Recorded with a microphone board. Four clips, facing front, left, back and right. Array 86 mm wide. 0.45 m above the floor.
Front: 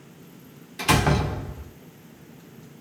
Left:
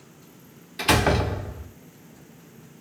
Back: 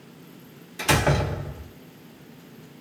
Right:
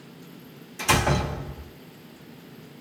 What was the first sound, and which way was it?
A door slam, 70° left.